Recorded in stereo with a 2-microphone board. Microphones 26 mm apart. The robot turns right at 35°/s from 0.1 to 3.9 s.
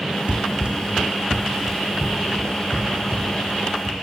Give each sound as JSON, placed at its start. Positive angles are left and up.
{"t": 0.3, "sound": "running footsteps", "side_deg": -50, "distance_m": 1.2}